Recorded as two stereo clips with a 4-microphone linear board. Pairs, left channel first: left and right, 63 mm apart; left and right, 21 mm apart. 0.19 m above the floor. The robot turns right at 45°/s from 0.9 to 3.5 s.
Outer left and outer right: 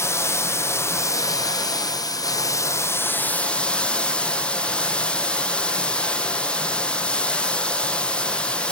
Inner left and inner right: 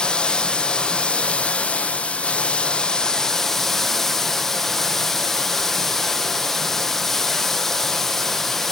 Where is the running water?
45° left, 0.7 m; by 8.7 s 165° left, 0.7 m.